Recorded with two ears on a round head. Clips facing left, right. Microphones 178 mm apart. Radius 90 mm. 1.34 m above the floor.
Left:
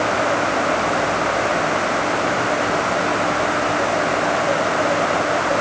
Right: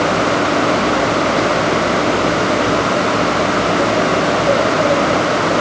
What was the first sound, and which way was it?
Only background noise.